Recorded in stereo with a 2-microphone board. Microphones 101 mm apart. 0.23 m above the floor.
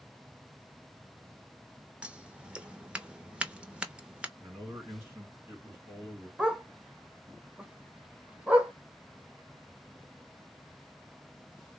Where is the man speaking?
25° right (ahead or behind), 2.5 m.